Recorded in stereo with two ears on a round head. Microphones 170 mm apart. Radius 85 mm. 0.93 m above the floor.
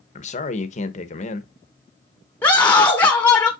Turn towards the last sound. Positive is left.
turn(degrees=10)  # may be behind; listen again after turning